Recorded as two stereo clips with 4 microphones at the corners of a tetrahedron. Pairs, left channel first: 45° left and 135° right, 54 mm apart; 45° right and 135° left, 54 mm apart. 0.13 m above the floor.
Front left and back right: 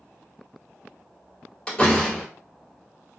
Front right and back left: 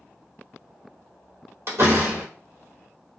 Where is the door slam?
115° left, 1.5 m.